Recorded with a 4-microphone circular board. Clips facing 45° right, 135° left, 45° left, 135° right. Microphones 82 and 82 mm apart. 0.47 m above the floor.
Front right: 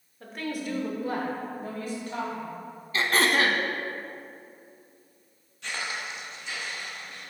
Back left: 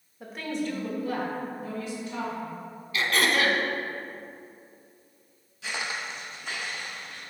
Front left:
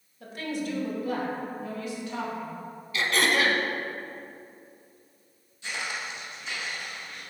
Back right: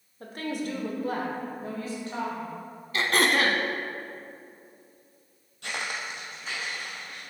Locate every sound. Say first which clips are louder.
0.2 s a woman speaking: back left 2 dB, even; 150° right, 1.0 m; by 2.6 s 80° right, 2.5 m
2.9 s throat clearing: front right 1 dB, back right 1 dB; 95° right, 0.6 m
5.6 s footsteps: back left 1 dB, back right 1 dB; 140° right, 0.9 m; by 7.2 s 165° left, 3 m